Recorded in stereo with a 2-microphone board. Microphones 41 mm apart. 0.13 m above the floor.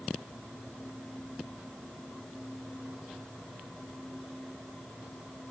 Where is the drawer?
I don't hear a drawer.